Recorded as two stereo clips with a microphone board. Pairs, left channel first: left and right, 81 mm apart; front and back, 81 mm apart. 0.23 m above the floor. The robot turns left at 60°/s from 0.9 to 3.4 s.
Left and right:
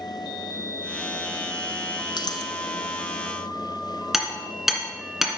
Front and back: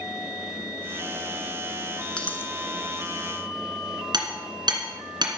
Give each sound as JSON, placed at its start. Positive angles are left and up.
{"t": 2.2, "sound": "a dropped coin", "azimuth_deg": 75, "distance_m": 1.2}
{"t": 4.1, "sound": "hammering", "azimuth_deg": -175, "distance_m": 2.5}